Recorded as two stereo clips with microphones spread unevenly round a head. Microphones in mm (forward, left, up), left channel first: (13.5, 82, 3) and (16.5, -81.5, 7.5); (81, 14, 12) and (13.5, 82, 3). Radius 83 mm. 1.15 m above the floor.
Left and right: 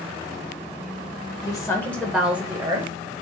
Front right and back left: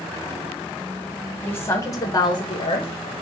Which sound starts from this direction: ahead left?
A woman speaking, at 1.4 s.